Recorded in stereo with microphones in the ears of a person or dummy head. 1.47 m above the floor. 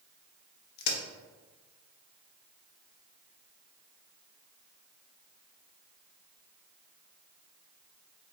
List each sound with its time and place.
0.8 s a crack: 55° left (ahead or behind), 0.9 m